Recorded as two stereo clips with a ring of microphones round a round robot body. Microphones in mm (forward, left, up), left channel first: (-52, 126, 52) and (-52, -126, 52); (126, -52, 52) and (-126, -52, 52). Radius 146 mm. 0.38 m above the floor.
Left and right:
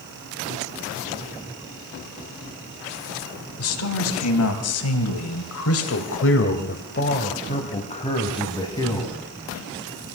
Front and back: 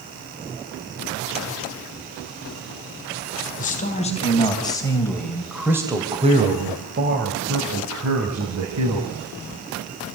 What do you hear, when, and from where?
3.6 s a man speaking: 60° left, 4 m; by 9.2 s 165° left, 4 m